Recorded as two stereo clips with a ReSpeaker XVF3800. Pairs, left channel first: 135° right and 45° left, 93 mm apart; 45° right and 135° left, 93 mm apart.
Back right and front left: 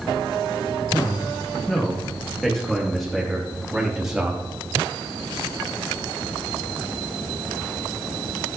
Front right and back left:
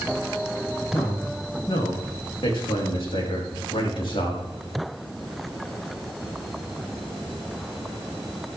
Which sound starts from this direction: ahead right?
A man speaking, at 0.9 s.